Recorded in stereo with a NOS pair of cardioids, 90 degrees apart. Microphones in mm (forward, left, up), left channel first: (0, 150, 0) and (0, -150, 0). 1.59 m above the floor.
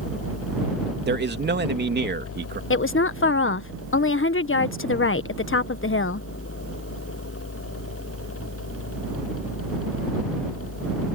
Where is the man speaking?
35° right.